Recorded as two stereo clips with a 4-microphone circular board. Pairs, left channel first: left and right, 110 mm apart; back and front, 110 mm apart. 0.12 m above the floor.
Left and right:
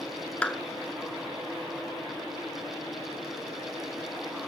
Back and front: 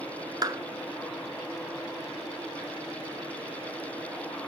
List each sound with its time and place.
0.4 s a clap: 15° left, 1.0 m